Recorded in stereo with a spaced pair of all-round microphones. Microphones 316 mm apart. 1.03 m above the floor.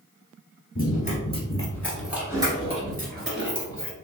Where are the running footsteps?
30° left (ahead or behind), 1.3 m; by 3.9 s 45° right (ahead or behind), 1.4 m.